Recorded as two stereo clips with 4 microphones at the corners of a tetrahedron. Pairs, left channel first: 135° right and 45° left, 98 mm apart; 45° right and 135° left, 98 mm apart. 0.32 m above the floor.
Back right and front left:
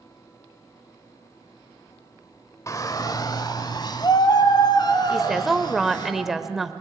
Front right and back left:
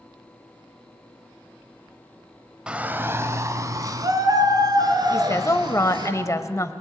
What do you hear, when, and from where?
2.7 s a shout: 150° right, 1.0 m; by 6.1 s straight behind, 4.5 m
5.1 s a woman speaking: 40° right, 1.0 m